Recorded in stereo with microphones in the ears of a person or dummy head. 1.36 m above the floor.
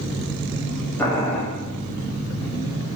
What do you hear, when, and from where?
1.0 s boiling: 10° left (ahead or behind), 0.6 m